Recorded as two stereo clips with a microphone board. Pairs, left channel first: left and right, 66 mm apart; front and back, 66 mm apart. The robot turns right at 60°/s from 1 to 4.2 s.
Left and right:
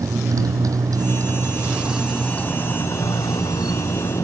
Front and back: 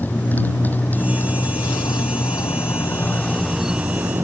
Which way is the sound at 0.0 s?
60° right.